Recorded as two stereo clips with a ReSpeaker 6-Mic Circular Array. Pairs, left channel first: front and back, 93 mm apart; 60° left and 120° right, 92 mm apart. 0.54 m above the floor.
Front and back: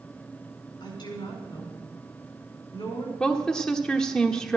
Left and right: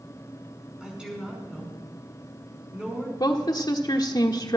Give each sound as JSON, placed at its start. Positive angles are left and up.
{"t": 0.8, "sound": "a woman speaking", "azimuth_deg": -40, "distance_m": 5.0}
{"t": 3.2, "sound": "a woman speaking", "azimuth_deg": 80, "distance_m": 1.1}